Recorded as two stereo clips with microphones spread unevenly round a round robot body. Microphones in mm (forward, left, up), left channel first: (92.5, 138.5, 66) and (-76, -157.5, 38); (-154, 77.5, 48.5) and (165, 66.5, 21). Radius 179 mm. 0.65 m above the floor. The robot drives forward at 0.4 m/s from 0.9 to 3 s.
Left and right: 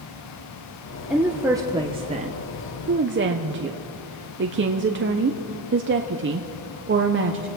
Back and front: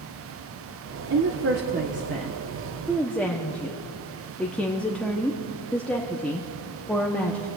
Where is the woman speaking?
40° right, 1.1 m; by 7.5 s 90° right, 0.9 m.